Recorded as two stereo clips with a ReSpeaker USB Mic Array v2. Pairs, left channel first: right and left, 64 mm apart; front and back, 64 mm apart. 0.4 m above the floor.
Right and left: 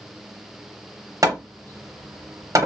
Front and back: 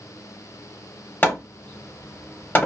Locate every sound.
1.2 s hammering: 60° left, 0.6 m